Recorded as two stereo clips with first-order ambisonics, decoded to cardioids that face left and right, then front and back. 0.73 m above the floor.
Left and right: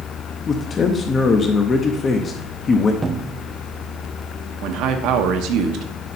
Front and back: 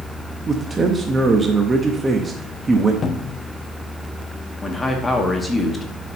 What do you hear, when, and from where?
0.5 s a man speaking: 130° left, 0.7 m
3.0 s a cupboard door: 25° right, 0.6 m
4.6 s a man speaking: 80° right, 0.8 m